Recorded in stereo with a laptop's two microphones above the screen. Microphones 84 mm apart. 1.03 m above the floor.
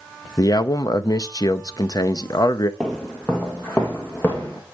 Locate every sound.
0.4 s a man speaking: 50° left (ahead or behind), 0.7 m
2.8 s footsteps: 5° left (ahead or behind), 1.5 m; by 4.6 s 20° left (ahead or behind), 3 m